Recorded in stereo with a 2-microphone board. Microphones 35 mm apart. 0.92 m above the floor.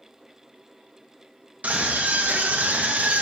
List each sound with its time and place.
1.6 s a scream: 50° right (ahead or behind), 1.2 m